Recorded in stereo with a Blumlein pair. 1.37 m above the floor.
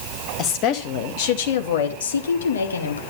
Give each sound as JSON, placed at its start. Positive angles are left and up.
{"t": 0.4, "sound": "a woman speaking", "azimuth_deg": 35, "distance_m": 2.5}